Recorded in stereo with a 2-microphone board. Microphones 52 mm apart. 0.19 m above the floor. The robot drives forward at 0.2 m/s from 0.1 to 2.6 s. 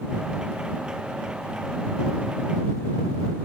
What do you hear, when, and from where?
Only background noise.